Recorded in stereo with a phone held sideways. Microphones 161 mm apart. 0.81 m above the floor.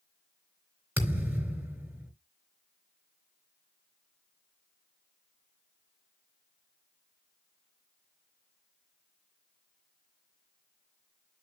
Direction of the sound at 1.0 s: 10° right (ahead or behind).